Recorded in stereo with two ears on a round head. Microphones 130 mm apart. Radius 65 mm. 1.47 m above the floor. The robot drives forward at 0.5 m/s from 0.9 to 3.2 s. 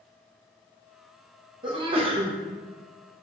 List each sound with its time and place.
1.6 s a sneeze: 30° right (ahead or behind), 1.0 m; by 2.3 s 45° right (ahead or behind), 0.7 m